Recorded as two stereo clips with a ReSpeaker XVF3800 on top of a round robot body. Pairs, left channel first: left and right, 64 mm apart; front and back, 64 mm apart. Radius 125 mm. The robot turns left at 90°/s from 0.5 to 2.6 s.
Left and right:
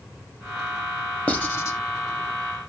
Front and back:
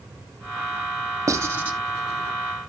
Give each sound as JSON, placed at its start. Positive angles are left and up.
{"t": 1.3, "sound": "writing", "azimuth_deg": 155, "distance_m": 1.4}